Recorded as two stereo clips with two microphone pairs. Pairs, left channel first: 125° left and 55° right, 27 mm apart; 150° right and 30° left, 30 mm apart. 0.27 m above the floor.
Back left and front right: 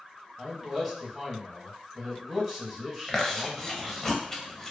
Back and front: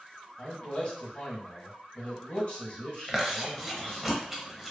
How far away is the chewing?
About 0.6 m.